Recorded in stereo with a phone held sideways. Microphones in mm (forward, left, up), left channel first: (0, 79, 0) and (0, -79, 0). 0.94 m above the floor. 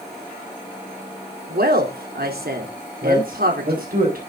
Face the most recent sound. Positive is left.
turn(degrees=-65)  # may be behind; listen again after turning